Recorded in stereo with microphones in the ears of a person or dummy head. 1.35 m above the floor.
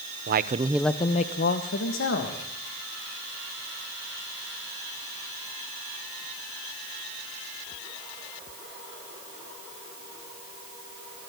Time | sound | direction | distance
0.3 | a man speaking | 50° right (ahead or behind) | 0.9 m